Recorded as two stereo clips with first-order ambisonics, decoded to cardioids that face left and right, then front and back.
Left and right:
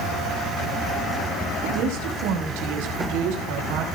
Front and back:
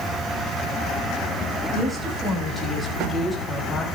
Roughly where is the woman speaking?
Right.